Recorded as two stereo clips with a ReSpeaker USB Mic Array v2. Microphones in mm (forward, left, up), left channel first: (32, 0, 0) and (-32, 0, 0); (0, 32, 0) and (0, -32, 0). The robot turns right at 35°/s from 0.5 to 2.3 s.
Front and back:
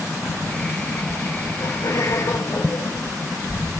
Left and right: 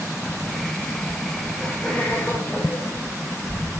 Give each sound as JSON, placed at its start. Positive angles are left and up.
{"t": 1.6, "sound": "laughter", "azimuth_deg": 5, "distance_m": 4.5}